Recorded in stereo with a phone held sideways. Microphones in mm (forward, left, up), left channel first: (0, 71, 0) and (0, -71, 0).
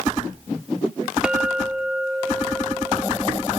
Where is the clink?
5° right (ahead or behind).